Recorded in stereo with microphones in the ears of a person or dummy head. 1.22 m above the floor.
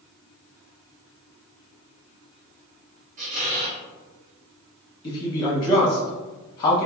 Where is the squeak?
35° right (ahead or behind), 0.7 m.